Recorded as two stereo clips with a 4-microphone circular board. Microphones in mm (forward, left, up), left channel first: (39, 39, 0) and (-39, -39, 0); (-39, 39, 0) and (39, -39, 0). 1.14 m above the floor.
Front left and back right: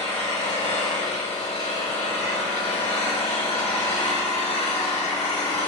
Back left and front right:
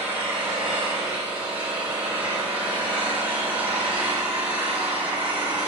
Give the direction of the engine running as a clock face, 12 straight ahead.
11 o'clock.